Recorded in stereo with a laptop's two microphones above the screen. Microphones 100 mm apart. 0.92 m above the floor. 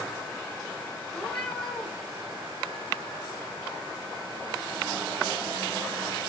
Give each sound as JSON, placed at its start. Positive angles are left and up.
{"t": 1.1, "sound": "a cat meowing", "side_deg": 5, "distance_m": 2.0}